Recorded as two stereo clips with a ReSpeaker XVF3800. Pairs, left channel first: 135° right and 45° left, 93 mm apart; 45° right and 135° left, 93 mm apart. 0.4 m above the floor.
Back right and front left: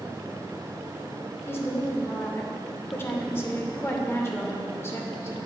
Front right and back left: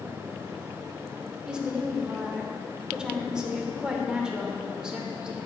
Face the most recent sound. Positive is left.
turn(degrees=-155)